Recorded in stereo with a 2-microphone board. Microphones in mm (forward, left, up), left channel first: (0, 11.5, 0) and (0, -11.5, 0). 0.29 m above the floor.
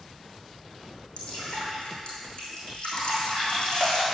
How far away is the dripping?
About 3.5 m.